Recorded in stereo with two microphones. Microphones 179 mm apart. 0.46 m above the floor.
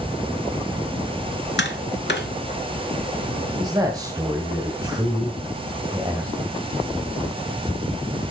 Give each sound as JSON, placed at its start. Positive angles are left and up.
{"t": 1.6, "sound": "tapping", "side_deg": 85, "distance_m": 1.7}
{"t": 3.6, "sound": "a man speaking", "side_deg": -20, "distance_m": 2.5}